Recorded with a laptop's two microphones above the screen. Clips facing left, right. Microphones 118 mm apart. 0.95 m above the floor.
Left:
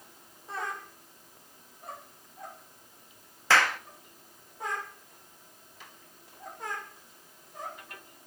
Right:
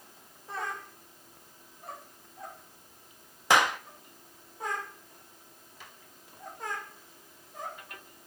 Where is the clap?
15° right (ahead or behind), 1.3 m.